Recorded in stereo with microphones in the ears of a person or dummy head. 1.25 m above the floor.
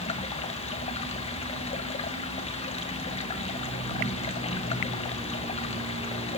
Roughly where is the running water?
Left.